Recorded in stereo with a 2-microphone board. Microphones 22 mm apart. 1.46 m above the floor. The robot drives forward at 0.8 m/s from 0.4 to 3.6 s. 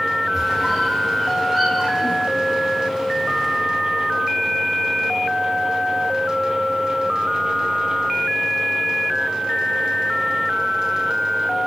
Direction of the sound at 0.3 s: 5° right (ahead or behind).